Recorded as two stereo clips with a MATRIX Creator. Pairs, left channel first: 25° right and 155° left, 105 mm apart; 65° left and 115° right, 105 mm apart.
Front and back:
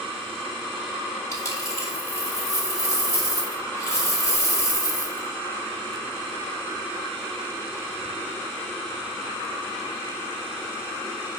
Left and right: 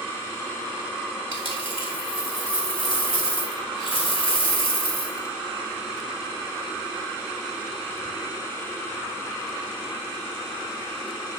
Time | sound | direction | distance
1.3 | a dropped coin | 35° left | 4 m